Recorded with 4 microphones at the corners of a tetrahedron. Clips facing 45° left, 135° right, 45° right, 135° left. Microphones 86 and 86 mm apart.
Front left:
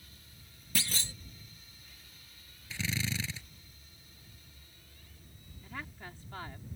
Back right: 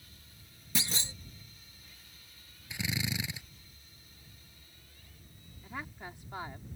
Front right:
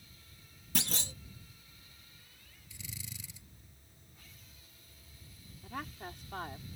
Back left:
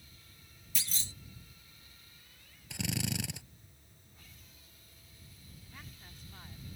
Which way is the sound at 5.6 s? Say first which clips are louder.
Back right 2 dB, front right 14 dB; 60° right.